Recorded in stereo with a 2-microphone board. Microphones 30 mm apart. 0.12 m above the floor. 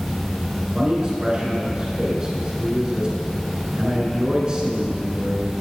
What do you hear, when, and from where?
0.6 s a man speaking: 25° right (ahead or behind), 1.2 m